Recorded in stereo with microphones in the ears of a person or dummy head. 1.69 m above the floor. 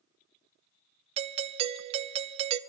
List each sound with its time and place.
1.2 s a doorbell: 35° right (ahead or behind), 0.8 m